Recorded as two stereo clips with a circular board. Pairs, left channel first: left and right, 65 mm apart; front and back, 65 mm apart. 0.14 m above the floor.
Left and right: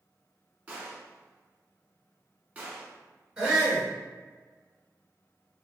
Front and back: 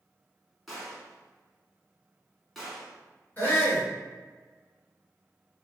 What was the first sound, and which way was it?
A gunshot, 90° right.